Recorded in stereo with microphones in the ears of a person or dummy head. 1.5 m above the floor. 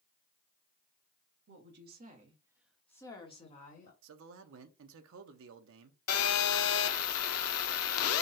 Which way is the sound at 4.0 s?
75° right (ahead or behind).